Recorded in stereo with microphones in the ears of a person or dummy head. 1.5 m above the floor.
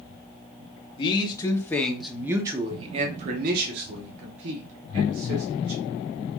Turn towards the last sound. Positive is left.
turn(degrees=-70)  # may be behind; listen again after turning